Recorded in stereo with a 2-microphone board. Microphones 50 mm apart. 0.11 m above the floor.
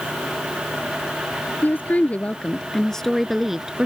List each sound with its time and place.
1.6 s a woman speaking: 35° left (ahead or behind); by 3.9 s 15° right (ahead or behind)